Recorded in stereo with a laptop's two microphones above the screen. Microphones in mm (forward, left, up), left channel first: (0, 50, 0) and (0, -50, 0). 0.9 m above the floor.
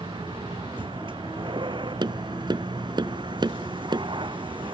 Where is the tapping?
50° right (ahead or behind).